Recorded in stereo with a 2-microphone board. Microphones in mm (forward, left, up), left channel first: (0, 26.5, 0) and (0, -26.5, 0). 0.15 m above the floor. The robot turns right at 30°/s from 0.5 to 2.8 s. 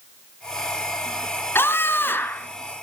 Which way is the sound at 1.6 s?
45° left (ahead or behind).